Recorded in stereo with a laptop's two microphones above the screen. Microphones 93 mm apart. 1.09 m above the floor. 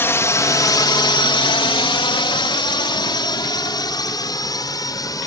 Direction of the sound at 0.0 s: 25° left (ahead or behind).